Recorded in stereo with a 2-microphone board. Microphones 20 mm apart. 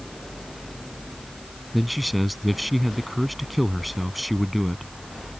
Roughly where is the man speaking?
Centre.